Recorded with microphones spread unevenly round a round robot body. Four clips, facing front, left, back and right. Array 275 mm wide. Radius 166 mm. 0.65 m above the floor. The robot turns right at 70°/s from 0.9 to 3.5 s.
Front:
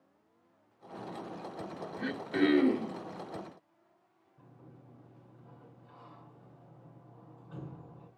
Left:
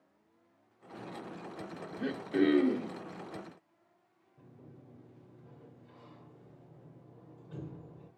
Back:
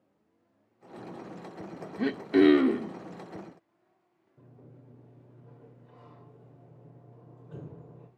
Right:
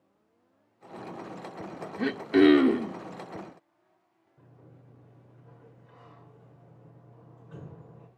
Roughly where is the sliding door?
Behind.